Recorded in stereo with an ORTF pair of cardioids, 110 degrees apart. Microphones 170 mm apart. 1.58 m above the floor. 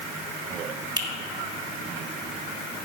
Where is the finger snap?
25° right, 1.9 m.